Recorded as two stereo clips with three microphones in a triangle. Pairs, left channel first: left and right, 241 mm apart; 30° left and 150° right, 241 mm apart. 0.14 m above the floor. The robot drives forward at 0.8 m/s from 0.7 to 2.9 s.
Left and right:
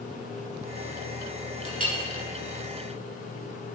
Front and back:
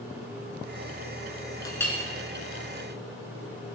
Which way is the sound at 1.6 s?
40° right.